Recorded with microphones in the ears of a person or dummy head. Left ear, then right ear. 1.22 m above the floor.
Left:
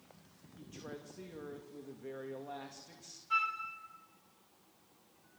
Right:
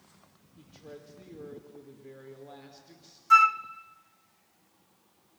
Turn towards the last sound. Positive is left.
turn(degrees=-50)  # may be behind; listen again after turning